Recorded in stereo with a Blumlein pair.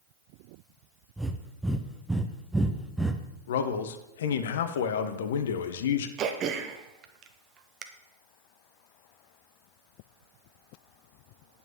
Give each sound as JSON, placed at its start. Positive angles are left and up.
{"t": 1.2, "sound": "breathing", "azimuth_deg": -5, "distance_m": 0.8}
{"t": 3.5, "sound": "a man speaking", "azimuth_deg": 60, "distance_m": 0.9}
{"t": 6.2, "sound": "throat clearing", "azimuth_deg": -30, "distance_m": 0.9}